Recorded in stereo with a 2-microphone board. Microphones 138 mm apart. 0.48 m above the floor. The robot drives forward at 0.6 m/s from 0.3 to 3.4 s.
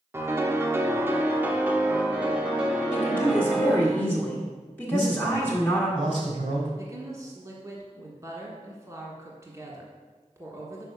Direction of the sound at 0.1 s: 20° right (ahead or behind).